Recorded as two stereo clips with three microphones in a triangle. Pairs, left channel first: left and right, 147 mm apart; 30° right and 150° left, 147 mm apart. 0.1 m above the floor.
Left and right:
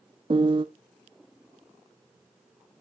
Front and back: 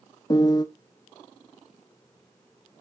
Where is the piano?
70° right, 0.5 m.